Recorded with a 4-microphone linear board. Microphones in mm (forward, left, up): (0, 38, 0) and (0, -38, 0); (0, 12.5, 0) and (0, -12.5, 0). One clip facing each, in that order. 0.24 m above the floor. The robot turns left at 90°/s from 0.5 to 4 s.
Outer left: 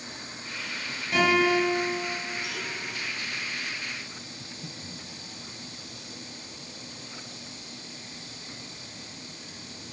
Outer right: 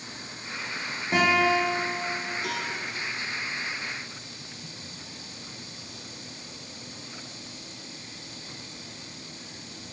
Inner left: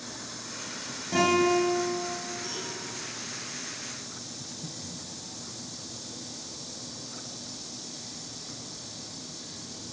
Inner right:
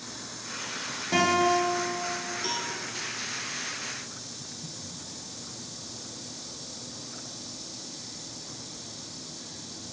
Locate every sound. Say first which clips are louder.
1.1 s a guitar: even, even; 150° right, 7.5 m; by 2.0 s 130° left, 7.5 m
2.4 s a cowbell: outer right 4 dB, inner right 5 dB; 55° right (ahead or behind), 2.5 m; by 2.7 s 50° right (ahead or behind), 2.5 m
4.4 s breathing: outer left 2 dB, inner left 1 dB; 30° left (ahead or behind), 0.7 m